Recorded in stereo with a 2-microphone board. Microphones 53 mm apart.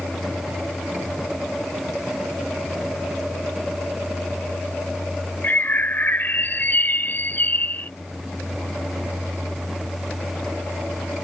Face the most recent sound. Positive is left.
turn(degrees=40)  # may be behind; listen again after turning